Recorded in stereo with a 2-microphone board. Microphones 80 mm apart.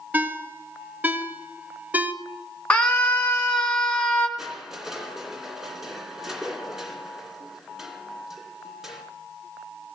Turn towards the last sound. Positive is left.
turn(degrees=-5)  # may be behind; listen again after turning